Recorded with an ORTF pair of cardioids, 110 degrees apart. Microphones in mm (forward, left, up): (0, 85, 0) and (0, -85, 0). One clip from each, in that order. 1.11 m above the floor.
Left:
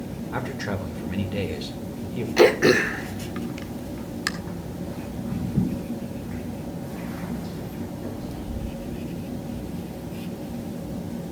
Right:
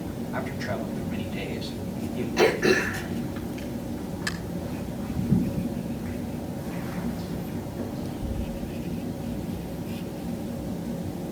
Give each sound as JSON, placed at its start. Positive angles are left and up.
{"t": 0.3, "sound": "a man speaking", "azimuth_deg": 60, "distance_m": 3.5}
{"t": 2.4, "sound": "throat clearing", "azimuth_deg": 45, "distance_m": 1.6}